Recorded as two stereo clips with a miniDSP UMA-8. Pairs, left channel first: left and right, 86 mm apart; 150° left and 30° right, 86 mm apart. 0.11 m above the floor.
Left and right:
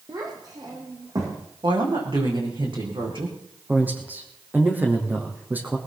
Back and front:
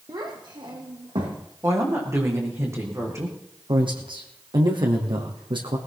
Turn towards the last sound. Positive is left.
turn(degrees=-20)